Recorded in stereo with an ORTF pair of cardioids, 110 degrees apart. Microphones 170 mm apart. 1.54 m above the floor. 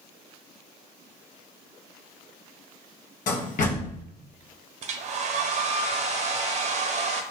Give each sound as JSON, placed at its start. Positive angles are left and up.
{"t": 3.3, "sound": "a door slam", "azimuth_deg": 50, "distance_m": 1.3}
{"t": 4.8, "sound": "a hair dryer", "azimuth_deg": -45, "distance_m": 0.8}